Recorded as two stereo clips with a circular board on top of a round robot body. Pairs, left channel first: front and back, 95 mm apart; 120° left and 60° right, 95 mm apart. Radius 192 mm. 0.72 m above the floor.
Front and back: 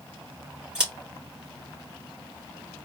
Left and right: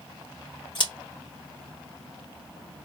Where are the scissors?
100° left, 2.5 m.